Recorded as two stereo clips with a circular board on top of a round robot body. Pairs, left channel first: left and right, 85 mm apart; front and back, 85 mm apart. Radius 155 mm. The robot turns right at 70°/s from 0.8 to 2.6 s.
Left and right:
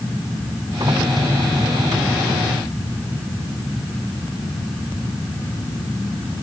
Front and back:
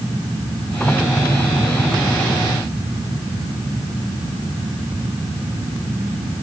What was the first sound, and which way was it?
Only background noise.